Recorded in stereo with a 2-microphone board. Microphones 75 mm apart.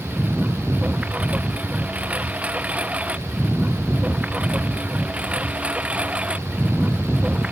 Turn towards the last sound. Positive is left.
turn(degrees=-15)  # may be behind; listen again after turning